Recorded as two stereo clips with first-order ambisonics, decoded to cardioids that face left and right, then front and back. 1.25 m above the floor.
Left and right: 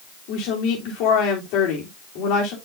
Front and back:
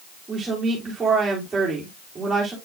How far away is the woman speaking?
About 3 m.